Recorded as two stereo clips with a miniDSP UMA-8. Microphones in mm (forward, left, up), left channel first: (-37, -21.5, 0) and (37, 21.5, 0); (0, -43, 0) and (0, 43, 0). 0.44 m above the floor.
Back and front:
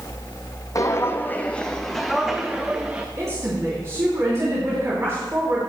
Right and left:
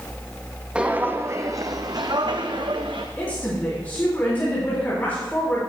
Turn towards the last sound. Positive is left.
turn(degrees=-25)